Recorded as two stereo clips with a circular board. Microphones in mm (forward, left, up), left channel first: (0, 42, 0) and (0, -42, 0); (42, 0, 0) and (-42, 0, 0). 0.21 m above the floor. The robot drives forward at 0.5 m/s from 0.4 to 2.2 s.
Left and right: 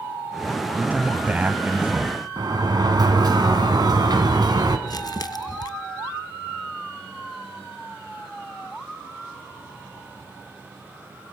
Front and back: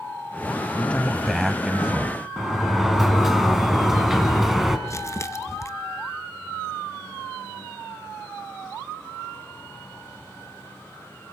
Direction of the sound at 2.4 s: 95° right.